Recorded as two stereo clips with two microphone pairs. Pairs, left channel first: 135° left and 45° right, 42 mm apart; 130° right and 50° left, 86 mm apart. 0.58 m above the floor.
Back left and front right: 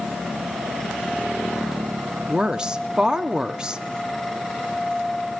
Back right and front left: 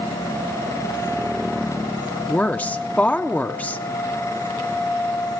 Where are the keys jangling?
No keys jangling in this recording.